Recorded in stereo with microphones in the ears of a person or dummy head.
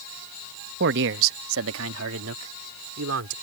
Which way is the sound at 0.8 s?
60° right (ahead or behind).